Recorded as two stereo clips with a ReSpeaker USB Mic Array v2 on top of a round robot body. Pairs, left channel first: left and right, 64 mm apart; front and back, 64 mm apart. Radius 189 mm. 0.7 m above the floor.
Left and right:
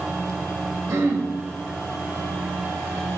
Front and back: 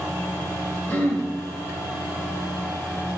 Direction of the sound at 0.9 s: 60° right.